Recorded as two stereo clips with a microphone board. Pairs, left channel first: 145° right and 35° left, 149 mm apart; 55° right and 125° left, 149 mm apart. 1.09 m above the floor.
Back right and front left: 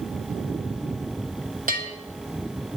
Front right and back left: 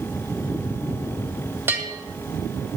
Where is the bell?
50° left, 2 m.